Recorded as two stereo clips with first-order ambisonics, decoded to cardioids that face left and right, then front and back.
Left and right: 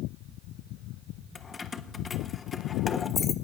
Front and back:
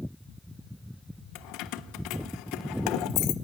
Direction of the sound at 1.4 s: 20° left.